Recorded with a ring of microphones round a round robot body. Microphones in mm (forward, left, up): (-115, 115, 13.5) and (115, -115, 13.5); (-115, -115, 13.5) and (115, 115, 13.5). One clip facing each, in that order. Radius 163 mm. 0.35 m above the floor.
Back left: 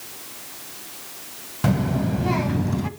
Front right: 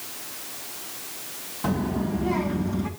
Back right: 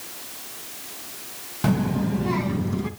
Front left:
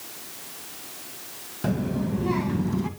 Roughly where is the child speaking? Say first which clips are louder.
Back left 3 dB, back right 3 dB; behind.